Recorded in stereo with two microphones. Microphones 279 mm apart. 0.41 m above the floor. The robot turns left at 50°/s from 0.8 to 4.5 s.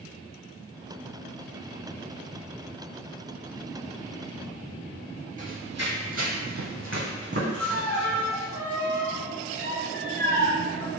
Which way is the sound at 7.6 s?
5° left (ahead or behind).